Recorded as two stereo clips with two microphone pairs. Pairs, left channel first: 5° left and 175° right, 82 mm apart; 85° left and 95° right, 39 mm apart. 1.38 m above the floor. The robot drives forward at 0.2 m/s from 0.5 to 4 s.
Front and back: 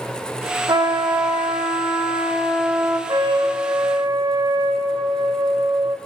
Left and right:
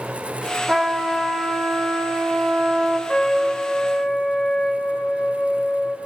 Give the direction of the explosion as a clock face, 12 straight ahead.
No explosion in this recording.